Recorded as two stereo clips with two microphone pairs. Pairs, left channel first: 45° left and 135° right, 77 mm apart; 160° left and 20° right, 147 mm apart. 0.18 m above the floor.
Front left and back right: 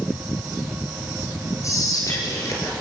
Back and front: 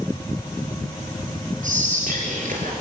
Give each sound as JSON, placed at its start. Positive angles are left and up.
{"t": 1.6, "sound": "whispering", "azimuth_deg": 0, "distance_m": 3.5}